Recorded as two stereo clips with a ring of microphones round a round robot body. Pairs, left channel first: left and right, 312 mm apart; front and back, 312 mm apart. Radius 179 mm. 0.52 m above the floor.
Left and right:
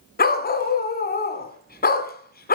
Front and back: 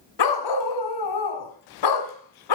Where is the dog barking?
30° left, 1.4 m.